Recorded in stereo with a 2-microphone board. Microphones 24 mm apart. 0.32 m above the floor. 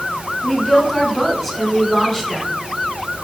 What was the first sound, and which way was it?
A woman speaking, 10° left (ahead or behind).